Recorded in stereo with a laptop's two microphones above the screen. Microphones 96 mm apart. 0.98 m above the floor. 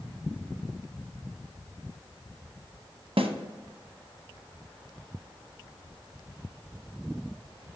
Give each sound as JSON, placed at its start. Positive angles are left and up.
{"t": 3.2, "sound": "a snare drum", "side_deg": -70, "distance_m": 0.7}